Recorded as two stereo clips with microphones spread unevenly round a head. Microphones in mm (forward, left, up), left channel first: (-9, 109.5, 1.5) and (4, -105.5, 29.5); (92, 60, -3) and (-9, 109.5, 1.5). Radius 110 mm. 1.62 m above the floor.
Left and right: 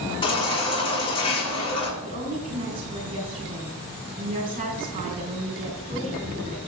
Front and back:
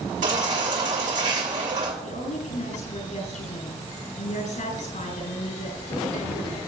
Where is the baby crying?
160° left, 6 m.